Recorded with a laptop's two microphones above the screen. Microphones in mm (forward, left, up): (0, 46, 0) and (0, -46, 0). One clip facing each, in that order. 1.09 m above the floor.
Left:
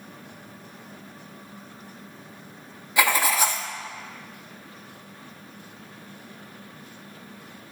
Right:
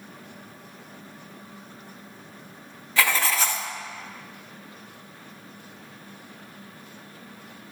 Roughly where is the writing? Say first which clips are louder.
Left 2 dB; centre.